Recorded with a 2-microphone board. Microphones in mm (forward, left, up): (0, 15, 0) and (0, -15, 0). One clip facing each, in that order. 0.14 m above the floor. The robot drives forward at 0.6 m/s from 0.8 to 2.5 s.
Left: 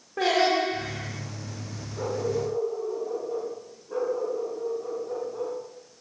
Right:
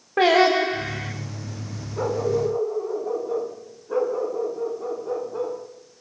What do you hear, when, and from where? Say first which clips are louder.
0.2 s singing: right 6 dB; 45° right (ahead or behind), 6 m
2.0 s a dog barking: right 5 dB; 35° right (ahead or behind), 7 m